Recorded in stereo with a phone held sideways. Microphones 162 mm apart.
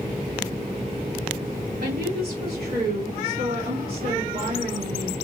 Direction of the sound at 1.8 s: 70° right (ahead or behind).